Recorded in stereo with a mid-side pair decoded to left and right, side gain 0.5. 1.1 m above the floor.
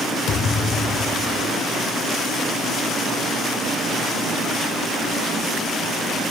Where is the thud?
65° left, 3 m.